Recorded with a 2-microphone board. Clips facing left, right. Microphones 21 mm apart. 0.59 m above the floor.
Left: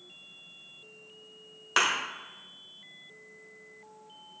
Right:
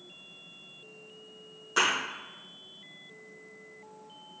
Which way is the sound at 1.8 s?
50° left (ahead or behind).